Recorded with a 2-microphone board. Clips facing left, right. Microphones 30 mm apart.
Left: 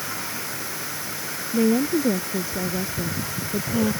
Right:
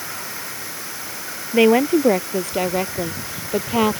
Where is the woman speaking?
65° right (ahead or behind).